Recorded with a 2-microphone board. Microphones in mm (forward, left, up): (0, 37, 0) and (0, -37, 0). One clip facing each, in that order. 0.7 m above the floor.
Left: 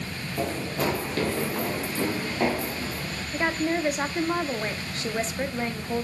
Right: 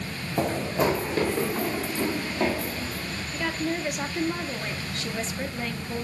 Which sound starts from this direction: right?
Running footsteps, at 0.4 s.